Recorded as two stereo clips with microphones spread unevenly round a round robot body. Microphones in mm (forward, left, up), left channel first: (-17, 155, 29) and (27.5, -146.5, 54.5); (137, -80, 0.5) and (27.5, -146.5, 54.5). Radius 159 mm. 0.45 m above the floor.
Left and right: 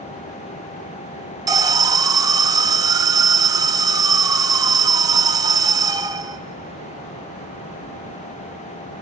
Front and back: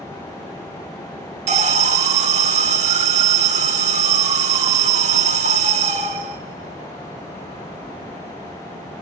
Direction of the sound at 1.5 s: 155° right.